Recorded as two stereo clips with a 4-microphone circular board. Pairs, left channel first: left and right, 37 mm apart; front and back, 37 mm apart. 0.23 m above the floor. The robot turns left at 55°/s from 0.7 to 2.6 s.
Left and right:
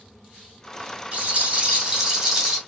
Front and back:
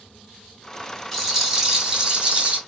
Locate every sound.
1.1 s a rattle: 90° right, 1.6 m; by 2.6 s 170° right, 1.6 m